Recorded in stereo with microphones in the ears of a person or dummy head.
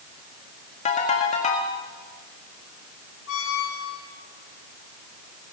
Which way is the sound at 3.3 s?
65° left (ahead or behind).